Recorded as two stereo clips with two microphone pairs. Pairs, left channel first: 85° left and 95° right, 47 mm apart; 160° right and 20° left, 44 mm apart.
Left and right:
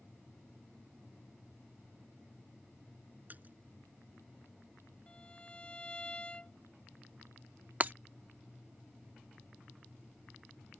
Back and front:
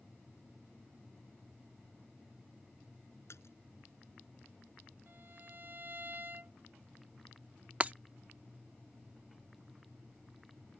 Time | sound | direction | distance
3.3 | a splash | 145° right | ?
5.1 | a violin | 25° left | ?
7.8 | breaking glass | 40° right | ?